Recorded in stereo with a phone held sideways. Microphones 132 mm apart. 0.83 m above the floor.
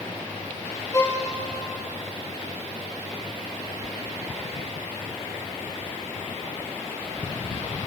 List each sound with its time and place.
0.9 s a violin: 25° left (ahead or behind), 2.5 m